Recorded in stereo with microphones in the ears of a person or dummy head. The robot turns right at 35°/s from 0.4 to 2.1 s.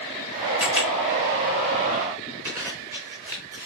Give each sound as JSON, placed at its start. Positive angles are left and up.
{"t": 0.6, "sound": "a camera shutter", "side_deg": -15, "distance_m": 1.9}
{"t": 2.5, "sound": "a zipper", "side_deg": -10, "distance_m": 0.7}